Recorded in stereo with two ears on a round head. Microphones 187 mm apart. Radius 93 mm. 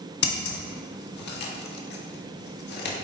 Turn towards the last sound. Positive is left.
turn(degrees=50)  # may be behind; listen again after turning